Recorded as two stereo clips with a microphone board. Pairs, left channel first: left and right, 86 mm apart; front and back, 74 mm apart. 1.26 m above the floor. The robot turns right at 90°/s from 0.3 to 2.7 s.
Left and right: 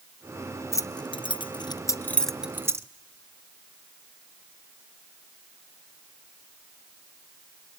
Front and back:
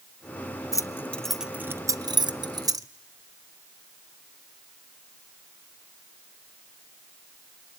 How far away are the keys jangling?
About 0.6 m.